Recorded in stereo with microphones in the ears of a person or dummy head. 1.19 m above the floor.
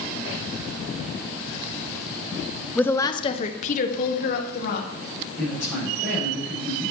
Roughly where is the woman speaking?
Centre.